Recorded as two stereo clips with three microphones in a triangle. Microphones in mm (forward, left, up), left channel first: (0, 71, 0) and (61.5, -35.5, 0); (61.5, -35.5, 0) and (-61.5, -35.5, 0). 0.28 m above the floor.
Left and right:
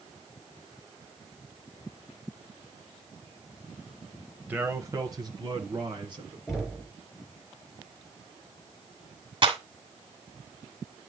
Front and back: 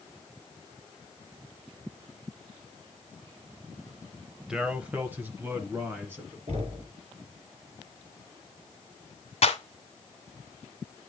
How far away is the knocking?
About 3 m.